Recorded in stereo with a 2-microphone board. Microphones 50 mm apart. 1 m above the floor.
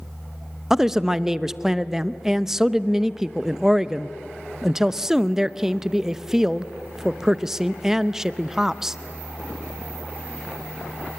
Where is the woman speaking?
10° right (ahead or behind), 0.6 m.